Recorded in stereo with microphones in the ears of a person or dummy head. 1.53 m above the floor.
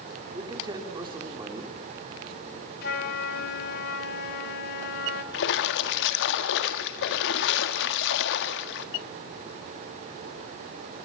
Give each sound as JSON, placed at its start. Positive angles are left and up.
{"t": 0.3, "sound": "a man speaking", "side_deg": -20, "distance_m": 3.5}
{"t": 2.8, "sound": "a flute", "side_deg": 40, "distance_m": 1.6}
{"t": 5.3, "sound": "a splash", "side_deg": 65, "distance_m": 1.7}